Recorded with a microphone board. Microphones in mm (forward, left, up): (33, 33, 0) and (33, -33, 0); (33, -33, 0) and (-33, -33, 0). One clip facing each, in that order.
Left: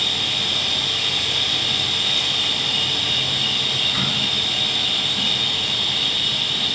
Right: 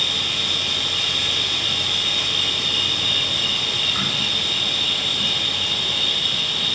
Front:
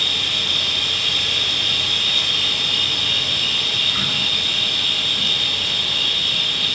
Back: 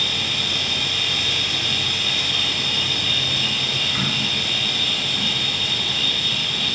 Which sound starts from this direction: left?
An insect, at 0.0 s.